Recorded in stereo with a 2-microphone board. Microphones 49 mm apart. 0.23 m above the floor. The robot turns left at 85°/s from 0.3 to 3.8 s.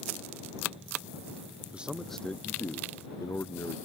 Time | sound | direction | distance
1.7 | a man speaking | 155° right | ?